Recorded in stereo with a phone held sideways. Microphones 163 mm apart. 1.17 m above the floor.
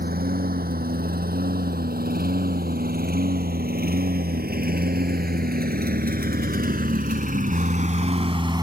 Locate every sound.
0.0 s a lawn mower: 70° right (ahead or behind); by 8.6 s 25° right (ahead or behind)